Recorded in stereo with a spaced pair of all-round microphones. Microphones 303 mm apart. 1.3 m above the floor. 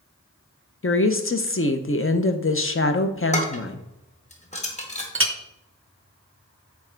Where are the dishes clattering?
20° left (ahead or behind), 1.1 m.